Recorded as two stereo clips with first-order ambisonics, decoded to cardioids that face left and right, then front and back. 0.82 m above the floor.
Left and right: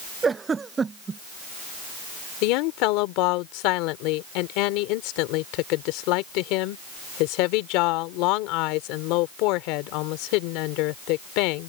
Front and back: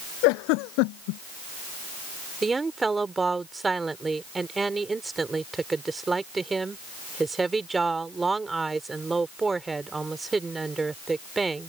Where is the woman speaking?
100° left.